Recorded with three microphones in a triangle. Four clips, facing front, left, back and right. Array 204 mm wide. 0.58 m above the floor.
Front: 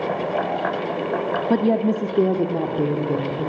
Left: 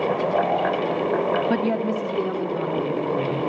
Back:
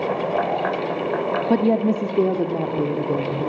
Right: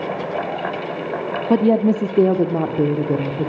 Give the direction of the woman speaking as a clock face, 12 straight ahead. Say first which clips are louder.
Right 7 dB, even; 3 o'clock.